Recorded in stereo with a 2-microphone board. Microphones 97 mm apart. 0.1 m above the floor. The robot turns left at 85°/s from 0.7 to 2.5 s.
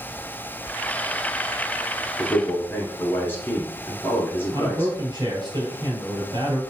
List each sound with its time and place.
2.2 s a man speaking: 30° left (ahead or behind), 1.5 m; by 4.9 s 20° left (ahead or behind), 1.5 m
4.5 s a man speaking: 45° right (ahead or behind), 2.5 m